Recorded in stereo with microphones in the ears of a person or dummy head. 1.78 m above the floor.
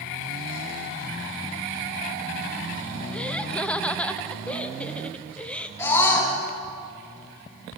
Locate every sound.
3.1 s laughter: 10° left (ahead or behind), 0.9 m
5.8 s a scream: 15° left (ahead or behind), 5.5 m